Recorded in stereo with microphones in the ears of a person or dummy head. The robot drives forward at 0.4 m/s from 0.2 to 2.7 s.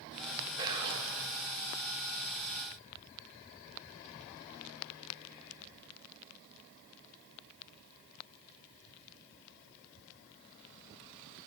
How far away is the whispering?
About 2 m.